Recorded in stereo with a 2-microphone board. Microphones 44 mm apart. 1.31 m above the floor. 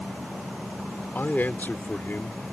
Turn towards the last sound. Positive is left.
turn(degrees=45)  # may be behind; listen again after turning